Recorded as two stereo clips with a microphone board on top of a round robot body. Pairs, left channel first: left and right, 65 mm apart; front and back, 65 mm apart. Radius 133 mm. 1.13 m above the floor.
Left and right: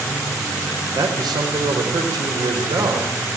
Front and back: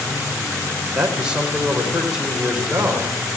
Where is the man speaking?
105° right, 4.5 m.